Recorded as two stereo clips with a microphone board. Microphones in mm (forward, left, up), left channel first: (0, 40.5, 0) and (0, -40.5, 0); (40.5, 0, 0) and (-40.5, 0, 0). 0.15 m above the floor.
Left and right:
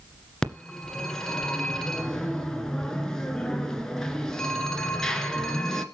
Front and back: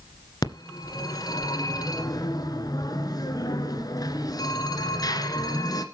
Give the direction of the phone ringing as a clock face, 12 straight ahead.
12 o'clock.